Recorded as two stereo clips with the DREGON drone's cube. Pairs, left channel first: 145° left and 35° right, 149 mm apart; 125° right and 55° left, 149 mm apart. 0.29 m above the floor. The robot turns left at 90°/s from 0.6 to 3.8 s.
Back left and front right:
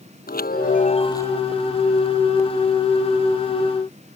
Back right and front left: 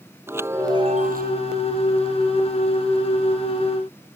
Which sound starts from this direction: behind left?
A chime, at 0.3 s.